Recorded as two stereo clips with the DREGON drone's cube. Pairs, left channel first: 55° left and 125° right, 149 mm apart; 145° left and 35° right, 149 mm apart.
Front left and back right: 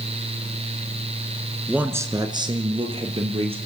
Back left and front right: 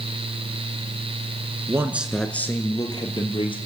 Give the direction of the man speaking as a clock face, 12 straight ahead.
2 o'clock.